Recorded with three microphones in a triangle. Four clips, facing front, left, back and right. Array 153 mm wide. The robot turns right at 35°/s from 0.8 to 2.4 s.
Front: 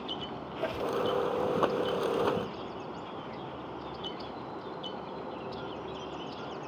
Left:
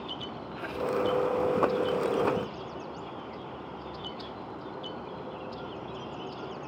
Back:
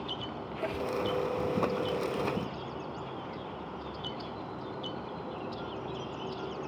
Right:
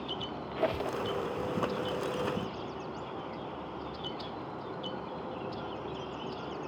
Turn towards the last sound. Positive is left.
turn(degrees=-25)